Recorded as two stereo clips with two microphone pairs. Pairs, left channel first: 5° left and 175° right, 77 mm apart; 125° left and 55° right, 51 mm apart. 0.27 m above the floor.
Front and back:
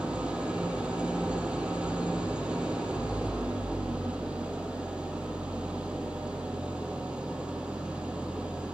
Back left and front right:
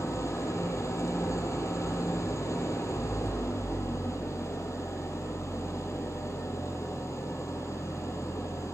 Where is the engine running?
110° left, 6 m.